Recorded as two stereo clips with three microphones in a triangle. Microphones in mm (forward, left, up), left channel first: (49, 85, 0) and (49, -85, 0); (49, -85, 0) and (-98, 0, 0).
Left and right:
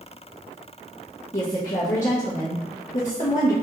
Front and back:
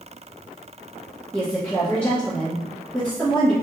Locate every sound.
1.3 s a woman speaking: 50° left, 1.4 m